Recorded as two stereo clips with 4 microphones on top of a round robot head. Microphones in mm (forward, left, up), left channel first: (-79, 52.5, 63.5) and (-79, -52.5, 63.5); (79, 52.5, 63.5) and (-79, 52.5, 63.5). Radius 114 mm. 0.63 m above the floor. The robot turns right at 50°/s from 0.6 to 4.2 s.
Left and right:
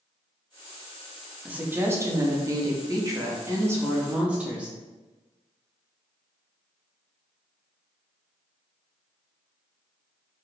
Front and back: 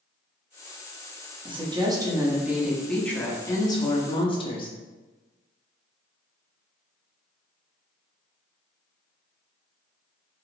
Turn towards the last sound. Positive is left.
turn(degrees=-20)